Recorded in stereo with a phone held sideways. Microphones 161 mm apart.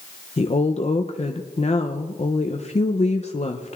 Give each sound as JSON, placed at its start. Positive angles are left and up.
{"t": 0.4, "sound": "a woman speaking", "side_deg": 45, "distance_m": 0.5}